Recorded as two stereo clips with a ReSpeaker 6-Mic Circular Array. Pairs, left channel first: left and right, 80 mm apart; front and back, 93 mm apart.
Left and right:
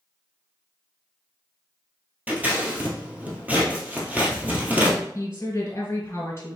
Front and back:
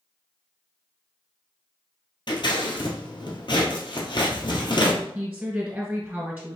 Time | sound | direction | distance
2.3 | scissors | 20° right | 1.4 m
5.2 | a woman speaking | 125° left | 1.9 m